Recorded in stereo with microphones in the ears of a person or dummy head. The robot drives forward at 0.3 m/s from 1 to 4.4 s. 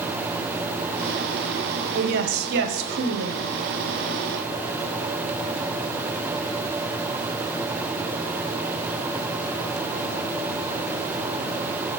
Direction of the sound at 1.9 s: 60° right (ahead or behind).